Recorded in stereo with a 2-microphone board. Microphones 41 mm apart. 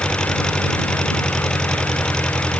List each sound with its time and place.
0.0 s an engine running: 15° left (ahead or behind)